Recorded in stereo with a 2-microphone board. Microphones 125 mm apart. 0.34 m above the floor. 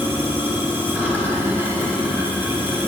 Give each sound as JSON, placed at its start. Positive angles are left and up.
{"t": 0.0, "sound": "running water", "side_deg": -20, "distance_m": 1.4}